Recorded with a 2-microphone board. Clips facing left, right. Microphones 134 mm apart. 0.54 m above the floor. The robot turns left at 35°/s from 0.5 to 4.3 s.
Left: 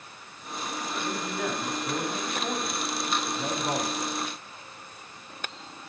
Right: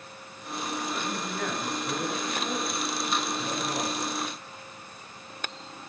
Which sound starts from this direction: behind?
A man speaking, at 1.0 s.